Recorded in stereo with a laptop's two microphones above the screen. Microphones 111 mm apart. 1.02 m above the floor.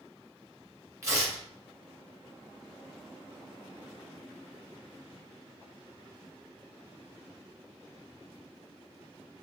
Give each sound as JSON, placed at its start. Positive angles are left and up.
{"t": 1.0, "sound": "tearing paper", "side_deg": -25, "distance_m": 2.5}